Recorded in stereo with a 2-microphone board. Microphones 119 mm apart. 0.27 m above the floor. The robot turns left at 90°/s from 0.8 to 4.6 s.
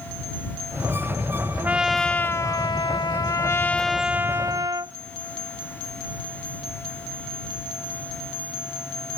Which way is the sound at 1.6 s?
155° right.